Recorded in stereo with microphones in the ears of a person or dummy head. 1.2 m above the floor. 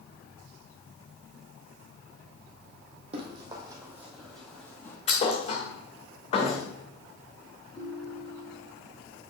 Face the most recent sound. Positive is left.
turn(degrees=45)  # may be behind; listen again after turning